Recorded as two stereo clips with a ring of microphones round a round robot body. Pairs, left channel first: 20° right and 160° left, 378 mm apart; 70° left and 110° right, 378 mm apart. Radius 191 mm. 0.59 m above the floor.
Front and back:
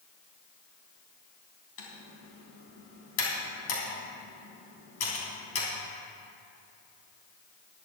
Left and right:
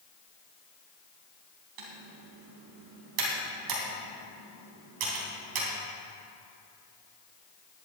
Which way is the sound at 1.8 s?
80° right.